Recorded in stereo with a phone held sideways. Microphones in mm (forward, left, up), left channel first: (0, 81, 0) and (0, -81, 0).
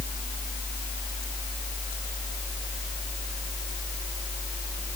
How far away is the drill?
No drill in this recording.